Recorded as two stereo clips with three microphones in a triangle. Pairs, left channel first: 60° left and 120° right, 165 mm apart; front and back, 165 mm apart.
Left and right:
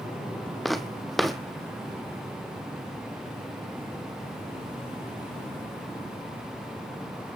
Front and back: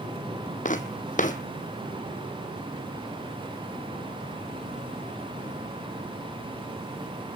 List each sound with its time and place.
0.7 s footsteps: 30° right, 1.4 m